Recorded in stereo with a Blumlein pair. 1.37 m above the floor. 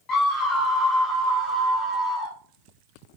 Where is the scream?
20° left, 1.1 m; by 2.3 s straight ahead, 3 m.